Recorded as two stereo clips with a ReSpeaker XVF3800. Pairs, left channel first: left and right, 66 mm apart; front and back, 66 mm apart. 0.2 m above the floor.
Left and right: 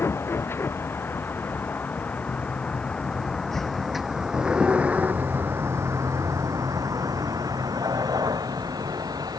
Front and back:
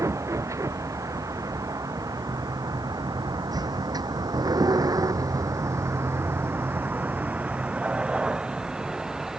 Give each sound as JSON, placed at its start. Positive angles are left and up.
{"t": 0.0, "sound": "a vehicle", "azimuth_deg": 140}